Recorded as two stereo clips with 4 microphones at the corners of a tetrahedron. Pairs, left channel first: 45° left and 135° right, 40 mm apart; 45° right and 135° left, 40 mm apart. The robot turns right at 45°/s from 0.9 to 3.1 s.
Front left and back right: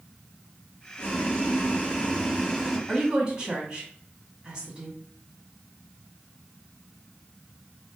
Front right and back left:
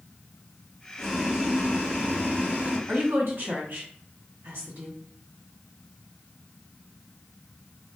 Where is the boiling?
45° left, 1.3 m; by 2.8 s 125° left, 1.3 m.